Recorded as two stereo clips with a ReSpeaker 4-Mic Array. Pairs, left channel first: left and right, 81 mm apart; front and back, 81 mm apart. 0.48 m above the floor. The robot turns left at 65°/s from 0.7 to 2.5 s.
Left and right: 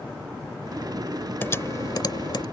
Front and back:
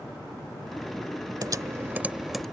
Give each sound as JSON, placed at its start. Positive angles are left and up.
{"t": 1.4, "sound": "typing on a keyboard", "azimuth_deg": 150}